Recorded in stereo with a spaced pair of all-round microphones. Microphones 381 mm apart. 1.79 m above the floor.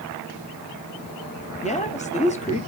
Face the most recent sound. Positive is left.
turn(degrees=20)  # may be behind; listen again after turning